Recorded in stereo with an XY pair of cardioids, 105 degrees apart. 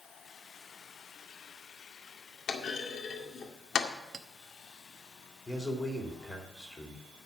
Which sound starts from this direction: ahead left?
A clunk, at 2.5 s.